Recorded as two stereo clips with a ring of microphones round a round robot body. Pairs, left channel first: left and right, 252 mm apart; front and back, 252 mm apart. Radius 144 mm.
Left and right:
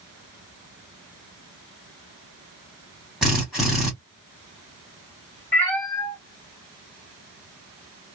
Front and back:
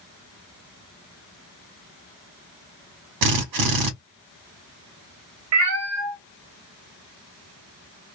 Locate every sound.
3.2 s a drill: straight behind, 0.9 m
5.5 s a cat meowing: 170° left, 0.6 m